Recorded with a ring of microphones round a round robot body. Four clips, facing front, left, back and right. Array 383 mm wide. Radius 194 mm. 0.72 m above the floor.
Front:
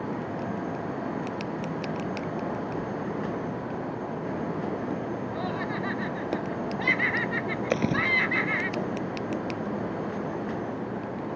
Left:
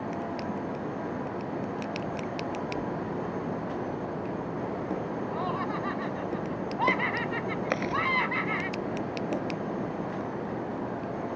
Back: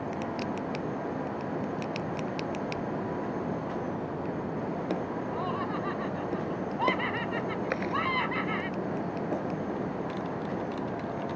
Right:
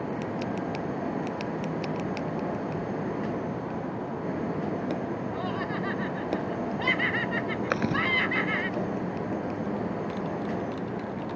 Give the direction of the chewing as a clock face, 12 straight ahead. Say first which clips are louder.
Right 2 dB, front 7 dB; 1 o'clock.